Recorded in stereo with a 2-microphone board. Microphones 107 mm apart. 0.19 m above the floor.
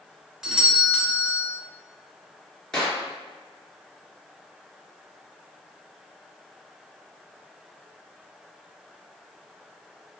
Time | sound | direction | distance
0.4 | a doorbell | 5° right (ahead or behind) | 1.5 m
2.7 | a clap | 5° left (ahead or behind) | 2.5 m